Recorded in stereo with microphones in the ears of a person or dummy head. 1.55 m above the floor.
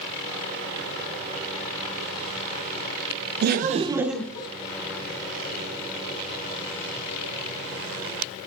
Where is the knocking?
I don't hear knocking.